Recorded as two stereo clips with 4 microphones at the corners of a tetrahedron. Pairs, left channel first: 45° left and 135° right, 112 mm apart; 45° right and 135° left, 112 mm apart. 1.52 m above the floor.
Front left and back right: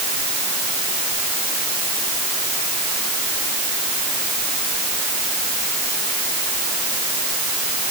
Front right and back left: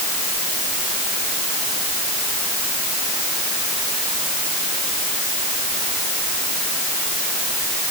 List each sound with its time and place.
Only background noise.